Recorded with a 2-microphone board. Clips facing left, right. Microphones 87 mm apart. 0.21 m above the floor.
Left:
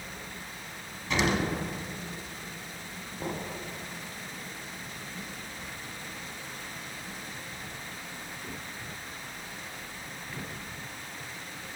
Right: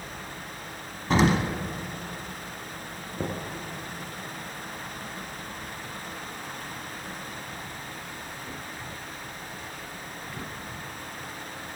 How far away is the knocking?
About 2.5 m.